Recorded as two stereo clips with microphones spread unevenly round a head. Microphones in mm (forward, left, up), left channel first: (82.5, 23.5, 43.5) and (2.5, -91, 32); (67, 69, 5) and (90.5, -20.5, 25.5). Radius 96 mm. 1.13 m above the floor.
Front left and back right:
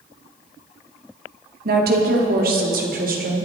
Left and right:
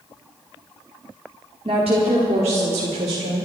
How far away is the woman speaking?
About 2 m.